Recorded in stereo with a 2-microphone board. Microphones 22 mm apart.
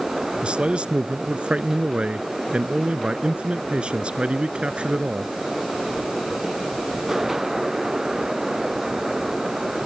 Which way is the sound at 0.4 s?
55° right (ahead or behind).